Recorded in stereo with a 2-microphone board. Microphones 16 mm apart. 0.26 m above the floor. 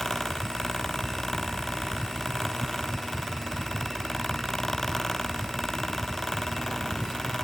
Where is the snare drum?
No snare drum in this recording.